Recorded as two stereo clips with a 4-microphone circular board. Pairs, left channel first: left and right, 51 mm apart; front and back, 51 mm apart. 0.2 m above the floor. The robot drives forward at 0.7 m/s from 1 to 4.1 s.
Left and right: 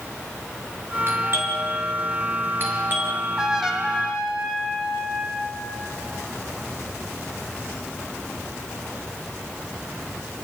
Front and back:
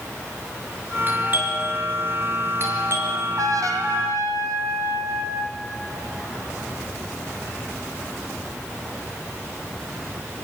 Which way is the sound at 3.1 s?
170° right.